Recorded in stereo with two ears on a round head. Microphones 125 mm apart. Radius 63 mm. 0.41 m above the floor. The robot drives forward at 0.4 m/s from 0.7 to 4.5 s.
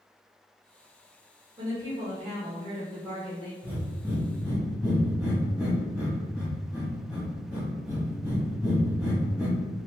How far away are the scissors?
No scissors in this recording.